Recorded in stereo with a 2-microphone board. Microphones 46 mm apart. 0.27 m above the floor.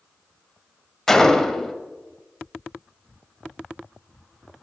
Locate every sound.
1.1 s a gunshot: 10° left (ahead or behind), 0.7 m